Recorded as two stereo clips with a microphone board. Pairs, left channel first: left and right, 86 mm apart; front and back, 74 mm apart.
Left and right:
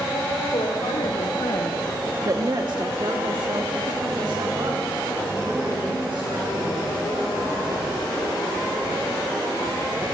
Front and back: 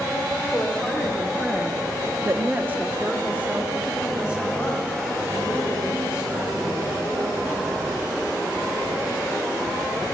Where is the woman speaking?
85° left, 2 m; by 7.4 s 105° right, 8.5 m.